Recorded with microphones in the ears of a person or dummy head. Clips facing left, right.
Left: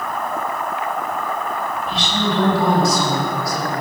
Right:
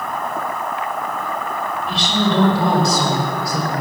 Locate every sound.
1.9 s a woman speaking: 55° right (ahead or behind), 5 m; by 3.8 s 75° right (ahead or behind), 5 m